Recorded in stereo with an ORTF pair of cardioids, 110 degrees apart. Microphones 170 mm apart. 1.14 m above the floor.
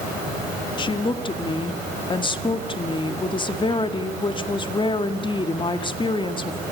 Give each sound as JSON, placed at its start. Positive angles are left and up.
{"t": 0.8, "sound": "a woman speaking", "azimuth_deg": 30, "distance_m": 1.9}